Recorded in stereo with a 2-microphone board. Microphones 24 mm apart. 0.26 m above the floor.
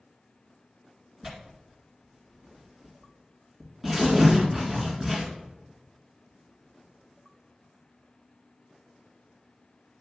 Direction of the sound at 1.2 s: 10° right (ahead or behind).